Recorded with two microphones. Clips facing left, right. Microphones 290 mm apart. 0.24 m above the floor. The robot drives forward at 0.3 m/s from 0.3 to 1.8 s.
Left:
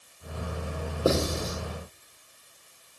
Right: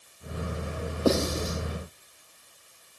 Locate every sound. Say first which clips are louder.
1.1 s writing: right 1 dB; 25° left (ahead or behind), 7 m